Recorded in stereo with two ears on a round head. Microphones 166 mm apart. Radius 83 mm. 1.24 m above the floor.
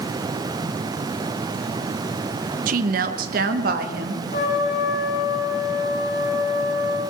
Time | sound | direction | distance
2.7 | a woman speaking | 50° right (ahead or behind) | 0.8 m
4.3 | a trumpet | 55° left (ahead or behind) | 9.5 m